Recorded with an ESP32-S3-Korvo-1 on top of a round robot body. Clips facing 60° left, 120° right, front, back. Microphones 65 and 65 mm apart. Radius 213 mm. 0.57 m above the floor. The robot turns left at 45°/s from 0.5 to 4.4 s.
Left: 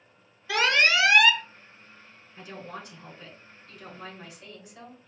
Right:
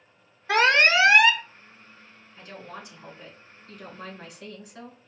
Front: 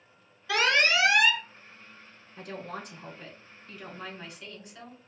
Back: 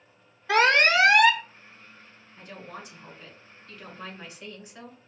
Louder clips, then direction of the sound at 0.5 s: Right 4 dB, back 5 dB; 145° right.